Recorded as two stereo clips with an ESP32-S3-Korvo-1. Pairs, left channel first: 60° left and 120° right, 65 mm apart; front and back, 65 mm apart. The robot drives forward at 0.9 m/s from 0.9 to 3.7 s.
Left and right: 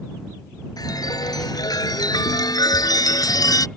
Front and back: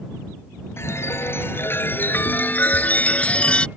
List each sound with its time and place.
0.8 s a chime: 50° left; by 3.7 s 75° left